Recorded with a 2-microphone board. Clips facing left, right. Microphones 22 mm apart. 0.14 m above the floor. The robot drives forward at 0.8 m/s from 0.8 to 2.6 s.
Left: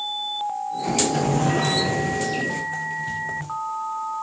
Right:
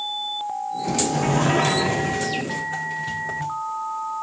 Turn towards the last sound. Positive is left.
turn(degrees=-15)  # may be behind; listen again after turning